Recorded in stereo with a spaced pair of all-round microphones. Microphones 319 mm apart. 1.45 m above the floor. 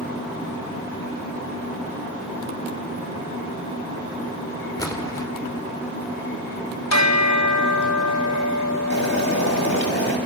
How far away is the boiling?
About 5 m.